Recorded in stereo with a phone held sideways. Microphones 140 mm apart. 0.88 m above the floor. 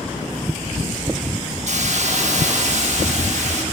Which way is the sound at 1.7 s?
55° right (ahead or behind).